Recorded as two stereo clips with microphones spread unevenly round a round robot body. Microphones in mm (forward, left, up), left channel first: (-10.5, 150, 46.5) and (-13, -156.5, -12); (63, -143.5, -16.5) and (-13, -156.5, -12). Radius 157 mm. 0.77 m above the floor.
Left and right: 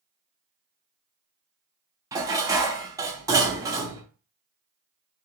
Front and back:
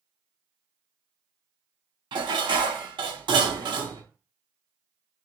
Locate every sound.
2.1 s dishes clattering: 170° right, 0.7 m